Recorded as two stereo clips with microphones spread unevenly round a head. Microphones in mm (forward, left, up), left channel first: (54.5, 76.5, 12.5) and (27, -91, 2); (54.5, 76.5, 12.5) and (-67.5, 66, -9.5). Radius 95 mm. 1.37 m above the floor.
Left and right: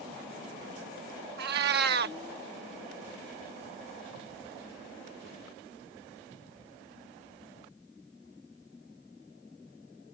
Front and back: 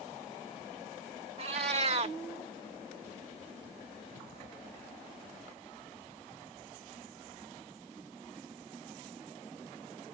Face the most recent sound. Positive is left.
turn(degrees=-120)